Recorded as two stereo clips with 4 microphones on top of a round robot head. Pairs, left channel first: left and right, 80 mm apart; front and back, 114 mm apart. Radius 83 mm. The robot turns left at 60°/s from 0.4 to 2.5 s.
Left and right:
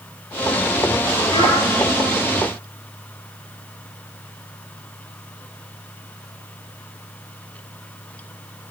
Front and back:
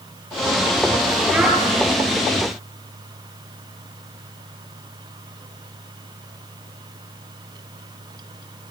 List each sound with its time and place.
1.3 s a child speaking: 100° left, 7.5 m; by 1.6 s 85° left, 7.5 m